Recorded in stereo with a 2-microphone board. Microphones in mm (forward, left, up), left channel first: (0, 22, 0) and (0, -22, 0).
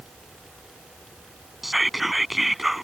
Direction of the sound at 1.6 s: Centre (ahead or behind).